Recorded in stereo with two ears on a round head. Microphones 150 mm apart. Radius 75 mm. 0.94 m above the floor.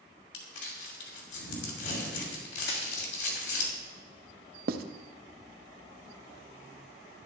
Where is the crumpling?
80° left, 2.5 m.